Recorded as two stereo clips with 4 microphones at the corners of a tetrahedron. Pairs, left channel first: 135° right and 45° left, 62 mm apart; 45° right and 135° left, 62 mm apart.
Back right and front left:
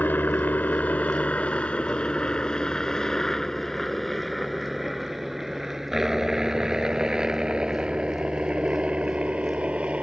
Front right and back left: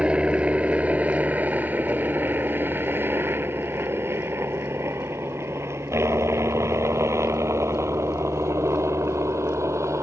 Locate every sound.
0.0 s a helicopter: 165° right; by 10.0 s 110° left